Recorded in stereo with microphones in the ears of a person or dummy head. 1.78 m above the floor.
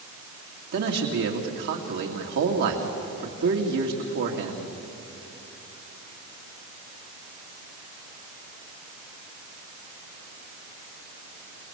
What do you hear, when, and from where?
0.7 s a man speaking: 60° right (ahead or behind), 2.5 m